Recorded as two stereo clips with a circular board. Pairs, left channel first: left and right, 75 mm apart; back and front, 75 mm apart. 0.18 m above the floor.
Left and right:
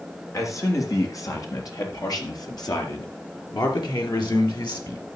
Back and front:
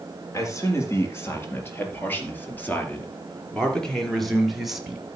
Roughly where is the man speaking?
Behind left.